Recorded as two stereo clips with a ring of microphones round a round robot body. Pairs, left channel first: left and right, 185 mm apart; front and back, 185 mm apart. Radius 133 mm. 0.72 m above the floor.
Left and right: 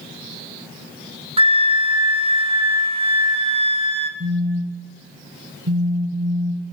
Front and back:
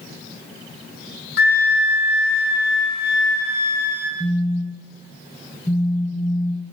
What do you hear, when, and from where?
1.4 s a flute: 35° right, 1.1 m
4.2 s a phone buzzing: 85° right, 0.9 m